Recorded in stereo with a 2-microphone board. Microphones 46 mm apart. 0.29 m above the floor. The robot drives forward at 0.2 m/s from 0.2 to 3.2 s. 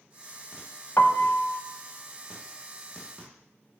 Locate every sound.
1.0 s a piano: 55° left (ahead or behind), 0.6 m; by 1.6 s 50° left (ahead or behind), 0.6 m